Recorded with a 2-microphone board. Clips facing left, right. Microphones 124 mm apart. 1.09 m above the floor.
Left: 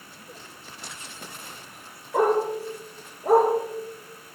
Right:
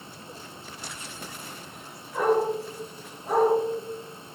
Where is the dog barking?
70° left (ahead or behind), 9 m.